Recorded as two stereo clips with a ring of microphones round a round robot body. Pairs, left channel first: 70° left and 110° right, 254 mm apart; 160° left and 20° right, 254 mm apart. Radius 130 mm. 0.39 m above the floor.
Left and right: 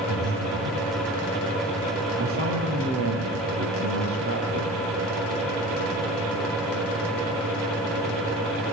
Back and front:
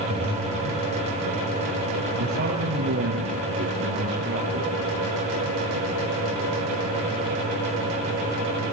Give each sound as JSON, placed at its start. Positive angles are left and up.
{"t": 0.1, "sound": "breathing", "azimuth_deg": -145, "distance_m": 8.5}
{"t": 2.2, "sound": "a woman speaking", "azimuth_deg": -75, "distance_m": 8.5}